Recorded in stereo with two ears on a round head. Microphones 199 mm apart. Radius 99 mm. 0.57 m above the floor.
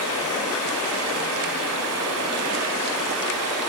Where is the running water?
80° right, 1.3 m.